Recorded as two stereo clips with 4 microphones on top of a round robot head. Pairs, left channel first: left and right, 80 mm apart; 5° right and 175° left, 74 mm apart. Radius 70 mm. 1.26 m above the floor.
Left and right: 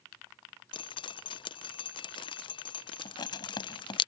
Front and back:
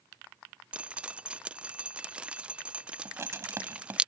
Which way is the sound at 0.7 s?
100° left.